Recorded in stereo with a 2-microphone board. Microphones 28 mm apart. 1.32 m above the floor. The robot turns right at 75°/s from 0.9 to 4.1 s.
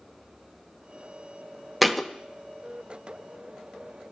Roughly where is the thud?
Centre.